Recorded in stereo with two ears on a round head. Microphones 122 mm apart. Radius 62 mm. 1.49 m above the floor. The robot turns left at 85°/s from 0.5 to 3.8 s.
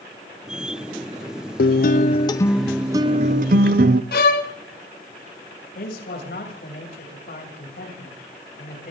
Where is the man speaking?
80° left, 8.5 m.